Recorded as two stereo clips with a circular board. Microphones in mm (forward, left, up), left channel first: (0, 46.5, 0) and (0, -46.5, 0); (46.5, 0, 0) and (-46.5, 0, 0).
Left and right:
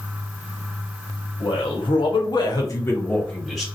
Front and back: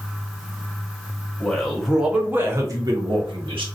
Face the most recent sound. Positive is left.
turn(degrees=180)